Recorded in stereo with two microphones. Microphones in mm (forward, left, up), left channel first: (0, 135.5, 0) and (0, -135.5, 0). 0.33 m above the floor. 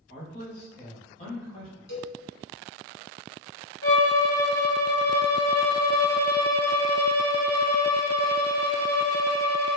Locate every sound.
0.1 s a man speaking: 45° left (ahead or behind), 1.8 m; by 1.7 s 15° left (ahead or behind), 1.8 m
1.9 s a cowbell: 75° left (ahead or behind), 0.9 m
3.8 s a violin: 55° left (ahead or behind), 0.8 m